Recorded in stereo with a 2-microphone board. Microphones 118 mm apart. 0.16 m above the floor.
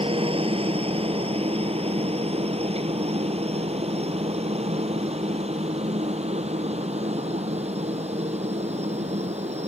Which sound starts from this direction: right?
A helicopter, at 0.0 s.